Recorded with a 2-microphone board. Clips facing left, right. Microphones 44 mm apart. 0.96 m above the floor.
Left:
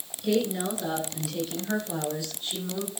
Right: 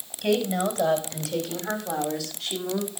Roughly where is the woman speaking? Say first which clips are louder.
Right 2 dB; right.